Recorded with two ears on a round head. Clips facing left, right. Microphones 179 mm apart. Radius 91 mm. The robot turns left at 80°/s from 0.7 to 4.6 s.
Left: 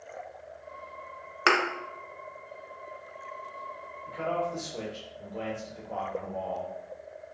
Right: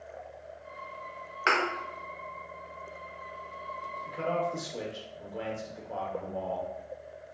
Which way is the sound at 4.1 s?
25° right (ahead or behind).